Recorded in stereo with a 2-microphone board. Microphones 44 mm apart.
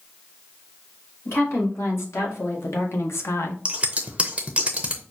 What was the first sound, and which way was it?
A woman speaking, 70° left (ahead or behind).